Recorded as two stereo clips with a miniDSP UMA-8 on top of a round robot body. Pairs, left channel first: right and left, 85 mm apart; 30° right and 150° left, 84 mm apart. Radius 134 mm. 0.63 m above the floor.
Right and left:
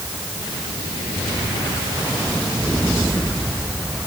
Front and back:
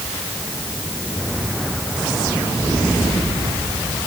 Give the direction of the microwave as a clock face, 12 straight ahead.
No microwave in this recording.